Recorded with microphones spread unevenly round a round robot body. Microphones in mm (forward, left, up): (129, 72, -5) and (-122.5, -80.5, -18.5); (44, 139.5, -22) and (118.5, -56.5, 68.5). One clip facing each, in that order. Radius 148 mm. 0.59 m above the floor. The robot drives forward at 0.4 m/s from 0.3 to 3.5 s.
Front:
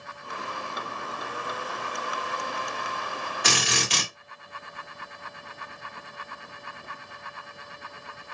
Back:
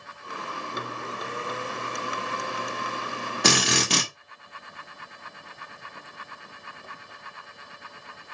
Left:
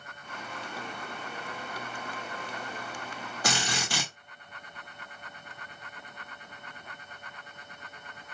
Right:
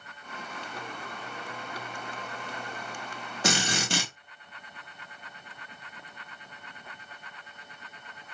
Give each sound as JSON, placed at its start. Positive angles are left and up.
{"t": 3.4, "sound": "a drill", "azimuth_deg": -150, "distance_m": 1.7}